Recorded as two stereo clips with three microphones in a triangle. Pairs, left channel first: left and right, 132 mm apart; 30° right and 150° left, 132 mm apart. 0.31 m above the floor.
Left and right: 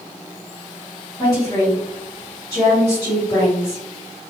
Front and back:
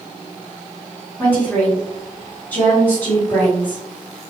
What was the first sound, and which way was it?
A woman speaking, 40° left.